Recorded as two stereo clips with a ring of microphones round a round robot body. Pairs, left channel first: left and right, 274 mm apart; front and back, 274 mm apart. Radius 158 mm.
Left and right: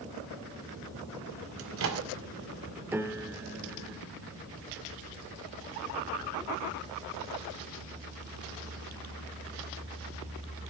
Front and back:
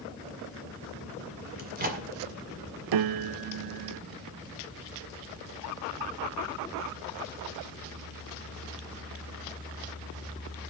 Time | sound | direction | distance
1.6 | a microwave | 125° right | 1.7 m
2.9 | a piano | 175° right | 0.5 m